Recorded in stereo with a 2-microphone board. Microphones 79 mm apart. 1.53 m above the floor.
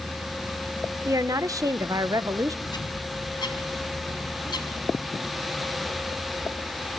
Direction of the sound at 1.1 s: 45° right (ahead or behind).